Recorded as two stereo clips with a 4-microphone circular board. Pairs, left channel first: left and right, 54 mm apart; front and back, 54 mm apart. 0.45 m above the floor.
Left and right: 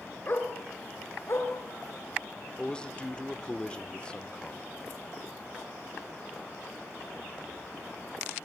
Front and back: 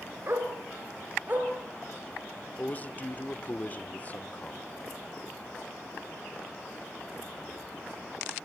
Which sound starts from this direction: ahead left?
A man speaking, at 2.6 s.